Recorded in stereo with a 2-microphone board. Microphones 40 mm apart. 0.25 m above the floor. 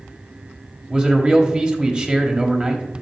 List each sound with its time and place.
0.9 s a man speaking: 25° right (ahead or behind), 0.9 m